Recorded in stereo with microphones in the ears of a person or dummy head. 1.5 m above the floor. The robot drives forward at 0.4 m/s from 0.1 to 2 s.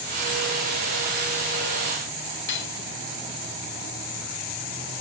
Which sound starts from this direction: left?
Cutlery clinking, at 2.5 s.